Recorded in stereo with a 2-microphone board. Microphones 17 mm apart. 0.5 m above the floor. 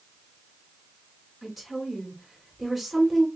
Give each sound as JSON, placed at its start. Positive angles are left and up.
{"t": 1.4, "sound": "a woman speaking", "side_deg": 0, "distance_m": 2.0}